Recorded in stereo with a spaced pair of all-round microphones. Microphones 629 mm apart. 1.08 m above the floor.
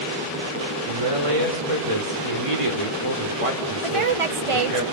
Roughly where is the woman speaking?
Right.